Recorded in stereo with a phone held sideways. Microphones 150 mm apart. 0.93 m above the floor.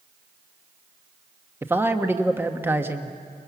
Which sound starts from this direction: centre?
A man speaking, at 1.6 s.